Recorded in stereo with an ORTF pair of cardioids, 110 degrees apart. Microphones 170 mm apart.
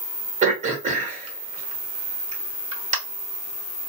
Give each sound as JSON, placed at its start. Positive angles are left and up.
{"t": 0.4, "sound": "throat clearing", "azimuth_deg": -45, "distance_m": 1.3}